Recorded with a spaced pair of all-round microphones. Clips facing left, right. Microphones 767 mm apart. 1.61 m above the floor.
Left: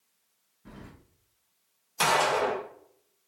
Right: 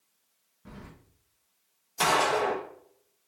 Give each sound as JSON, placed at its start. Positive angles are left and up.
{"t": 0.7, "sound": "keys jangling", "side_deg": -15, "distance_m": 0.5}
{"t": 2.0, "sound": "a gunshot", "side_deg": 20, "distance_m": 0.8}